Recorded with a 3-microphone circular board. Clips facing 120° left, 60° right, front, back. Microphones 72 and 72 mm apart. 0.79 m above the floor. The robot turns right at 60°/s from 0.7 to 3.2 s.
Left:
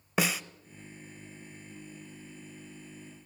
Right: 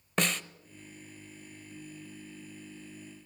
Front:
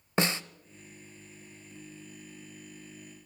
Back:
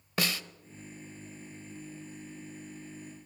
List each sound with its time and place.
0.2 s a snare drum: 40° left, 0.6 m